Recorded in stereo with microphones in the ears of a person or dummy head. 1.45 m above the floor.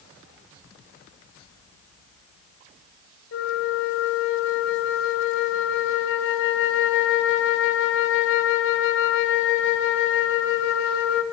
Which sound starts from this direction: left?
A flute, at 3.3 s.